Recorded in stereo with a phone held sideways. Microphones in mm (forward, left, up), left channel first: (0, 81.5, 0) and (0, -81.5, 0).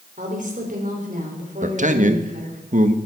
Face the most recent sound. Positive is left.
turn(degrees=-50)  # may be behind; listen again after turning